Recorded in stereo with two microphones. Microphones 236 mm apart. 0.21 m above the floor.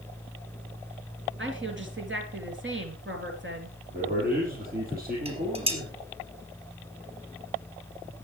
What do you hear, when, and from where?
1.4 s a woman speaking: 60° right (ahead or behind), 3.5 m
3.9 s a man speaking: 40° right (ahead or behind), 5.5 m
5.2 s dishes clattering: 25° right (ahead or behind), 3.5 m